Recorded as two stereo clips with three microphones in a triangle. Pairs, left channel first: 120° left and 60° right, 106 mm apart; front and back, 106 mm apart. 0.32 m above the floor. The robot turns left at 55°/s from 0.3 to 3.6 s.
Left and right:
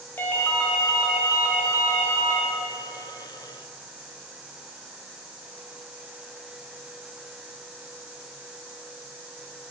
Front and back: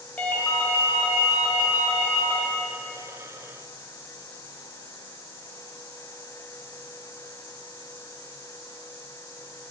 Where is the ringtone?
65° left, 1.0 m; by 2.4 s 50° right, 1.0 m.